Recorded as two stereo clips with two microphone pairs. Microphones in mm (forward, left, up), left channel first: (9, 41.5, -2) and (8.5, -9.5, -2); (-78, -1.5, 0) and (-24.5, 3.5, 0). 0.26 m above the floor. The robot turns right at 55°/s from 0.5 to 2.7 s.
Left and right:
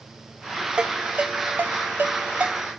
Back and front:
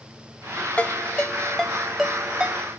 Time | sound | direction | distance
0.8 | a ringtone | 155° right | 0.5 m